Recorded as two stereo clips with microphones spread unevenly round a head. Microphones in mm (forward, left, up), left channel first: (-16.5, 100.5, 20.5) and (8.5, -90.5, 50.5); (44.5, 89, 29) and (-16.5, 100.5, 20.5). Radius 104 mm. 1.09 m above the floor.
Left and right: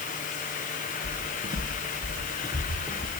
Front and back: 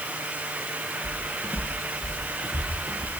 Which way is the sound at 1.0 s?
120° right.